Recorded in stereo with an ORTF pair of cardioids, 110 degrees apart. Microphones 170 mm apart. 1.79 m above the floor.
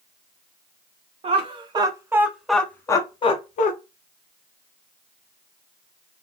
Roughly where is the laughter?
Ahead right.